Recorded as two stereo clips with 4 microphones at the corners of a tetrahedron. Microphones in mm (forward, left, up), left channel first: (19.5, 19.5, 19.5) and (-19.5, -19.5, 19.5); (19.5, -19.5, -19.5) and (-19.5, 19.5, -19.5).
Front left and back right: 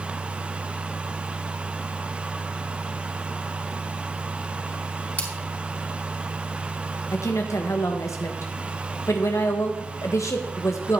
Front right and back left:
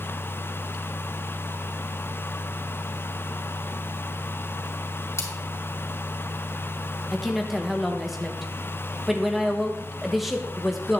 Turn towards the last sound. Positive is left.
turn(degrees=50)